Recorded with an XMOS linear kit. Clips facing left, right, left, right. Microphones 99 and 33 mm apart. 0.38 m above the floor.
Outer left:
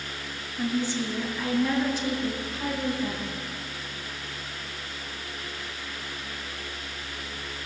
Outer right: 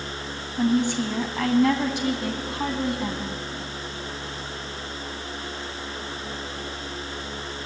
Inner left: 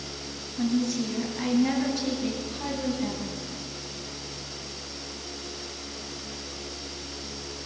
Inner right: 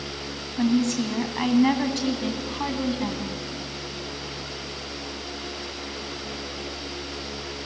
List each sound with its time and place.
0.6 s a woman speaking: 70° right (ahead or behind), 2.5 m; by 3.4 s 60° right (ahead or behind), 3 m